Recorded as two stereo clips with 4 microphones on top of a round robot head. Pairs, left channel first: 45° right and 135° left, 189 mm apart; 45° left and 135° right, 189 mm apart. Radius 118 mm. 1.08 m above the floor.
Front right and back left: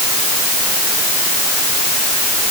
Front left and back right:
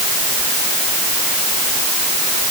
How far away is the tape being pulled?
I don't hear tape being pulled.